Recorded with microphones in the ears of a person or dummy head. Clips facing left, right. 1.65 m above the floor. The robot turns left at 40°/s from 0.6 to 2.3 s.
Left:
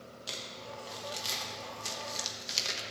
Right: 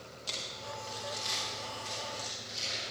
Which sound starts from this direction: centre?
Crumpling, at 0.3 s.